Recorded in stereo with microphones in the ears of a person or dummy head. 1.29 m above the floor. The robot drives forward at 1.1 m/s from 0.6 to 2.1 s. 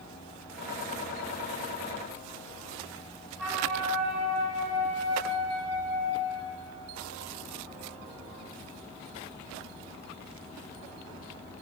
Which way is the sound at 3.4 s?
5° right (ahead or behind).